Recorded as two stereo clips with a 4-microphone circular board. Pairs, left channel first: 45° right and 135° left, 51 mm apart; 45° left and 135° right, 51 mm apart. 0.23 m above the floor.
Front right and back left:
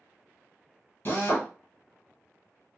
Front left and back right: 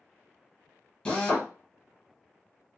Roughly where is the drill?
Ahead.